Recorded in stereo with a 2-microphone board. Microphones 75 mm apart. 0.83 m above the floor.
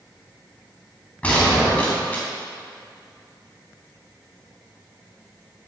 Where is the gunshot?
20° left (ahead or behind), 3 m.